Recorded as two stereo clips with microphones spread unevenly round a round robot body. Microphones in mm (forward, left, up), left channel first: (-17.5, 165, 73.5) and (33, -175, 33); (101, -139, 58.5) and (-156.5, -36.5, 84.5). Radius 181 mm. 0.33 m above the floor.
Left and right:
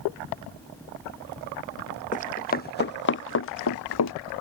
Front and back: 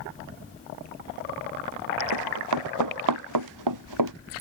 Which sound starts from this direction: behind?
Running footsteps, at 2.1 s.